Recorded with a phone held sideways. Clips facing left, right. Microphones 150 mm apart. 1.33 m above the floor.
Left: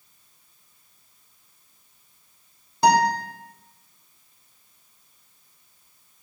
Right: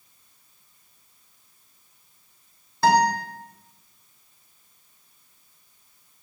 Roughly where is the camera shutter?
No camera shutter in this recording.